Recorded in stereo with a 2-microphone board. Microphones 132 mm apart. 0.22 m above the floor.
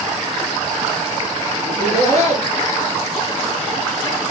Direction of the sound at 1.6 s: 60° right (ahead or behind).